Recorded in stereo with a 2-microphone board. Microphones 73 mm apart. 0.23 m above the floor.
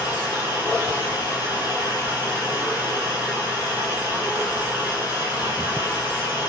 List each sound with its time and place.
0.0 s running water: 70° left (ahead or behind), 2 m